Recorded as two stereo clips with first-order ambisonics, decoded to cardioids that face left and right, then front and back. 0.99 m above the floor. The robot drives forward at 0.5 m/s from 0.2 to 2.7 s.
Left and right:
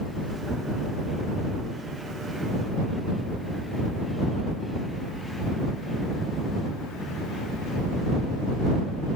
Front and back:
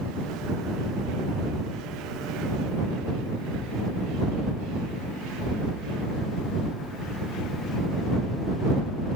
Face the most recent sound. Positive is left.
No sound to turn to.